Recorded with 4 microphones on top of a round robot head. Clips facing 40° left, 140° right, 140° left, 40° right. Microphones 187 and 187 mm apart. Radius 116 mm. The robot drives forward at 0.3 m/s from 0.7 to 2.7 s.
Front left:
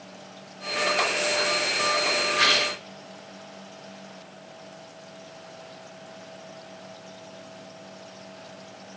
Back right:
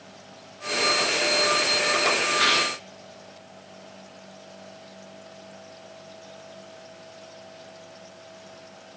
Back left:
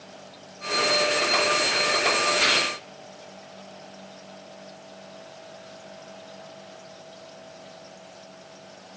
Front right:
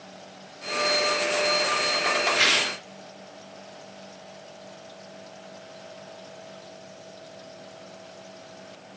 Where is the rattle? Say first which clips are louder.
Even, back left 2 dB; 60° right, 1.2 m; by 2.7 s 70° right, 1.2 m.